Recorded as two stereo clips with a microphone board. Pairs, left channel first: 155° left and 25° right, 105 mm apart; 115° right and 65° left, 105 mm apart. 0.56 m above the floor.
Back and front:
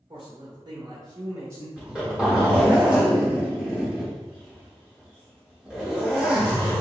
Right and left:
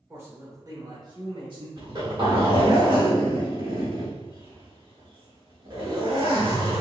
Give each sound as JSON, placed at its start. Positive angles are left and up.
{"t": 0.1, "sound": "a man speaking", "azimuth_deg": 0, "distance_m": 1.4}
{"t": 1.8, "sound": "a zipper", "azimuth_deg": 55, "distance_m": 1.5}